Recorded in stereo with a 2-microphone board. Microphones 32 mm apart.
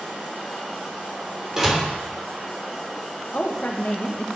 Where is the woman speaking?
55° left (ahead or behind), 1.4 m.